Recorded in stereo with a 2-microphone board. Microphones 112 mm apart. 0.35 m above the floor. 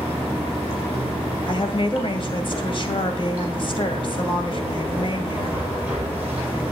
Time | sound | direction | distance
0.0 | running water | 15° right (ahead or behind) | 5 m
1.5 | a woman speaking | 50° left (ahead or behind) | 2 m